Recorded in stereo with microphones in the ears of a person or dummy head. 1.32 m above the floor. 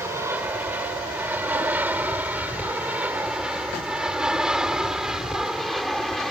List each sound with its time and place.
0.0 s an aircraft: 10° right (ahead or behind); by 6.3 s centre (ahead or behind)